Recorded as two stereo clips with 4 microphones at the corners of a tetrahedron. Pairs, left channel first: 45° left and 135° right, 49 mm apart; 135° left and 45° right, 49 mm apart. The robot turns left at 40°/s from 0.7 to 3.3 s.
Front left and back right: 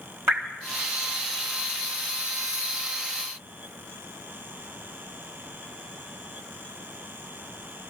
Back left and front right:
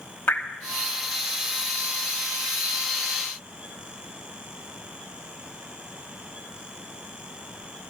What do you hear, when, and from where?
0.3 s dripping: 175° right, 3 m